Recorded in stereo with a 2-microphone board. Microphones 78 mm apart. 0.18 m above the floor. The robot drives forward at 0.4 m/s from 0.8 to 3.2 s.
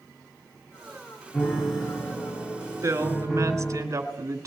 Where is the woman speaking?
45° right (ahead or behind), 1.8 m.